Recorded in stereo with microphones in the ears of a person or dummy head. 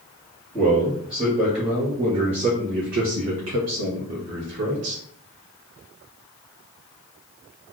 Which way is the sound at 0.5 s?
Centre (ahead or behind).